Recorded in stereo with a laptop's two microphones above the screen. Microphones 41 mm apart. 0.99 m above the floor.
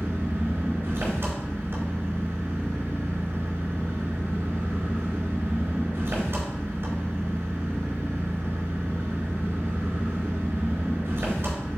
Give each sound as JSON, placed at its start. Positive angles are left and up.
{"t": 0.0, "sound": "an engine running", "side_deg": -55, "distance_m": 4.0}